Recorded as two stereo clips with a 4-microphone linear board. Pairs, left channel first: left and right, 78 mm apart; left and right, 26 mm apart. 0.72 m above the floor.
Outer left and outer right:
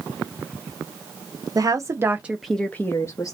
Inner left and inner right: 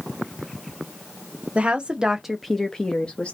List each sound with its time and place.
1.6 s a woman speaking: 50° right (ahead or behind), 0.8 m; by 3.3 s 45° left (ahead or behind), 0.8 m